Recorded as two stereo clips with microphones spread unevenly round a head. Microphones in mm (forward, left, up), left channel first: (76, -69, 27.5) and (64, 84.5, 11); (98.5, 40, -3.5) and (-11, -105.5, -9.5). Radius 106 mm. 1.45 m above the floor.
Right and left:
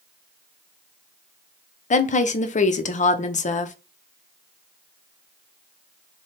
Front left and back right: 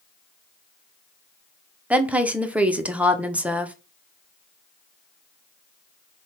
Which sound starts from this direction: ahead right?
A woman speaking, at 1.9 s.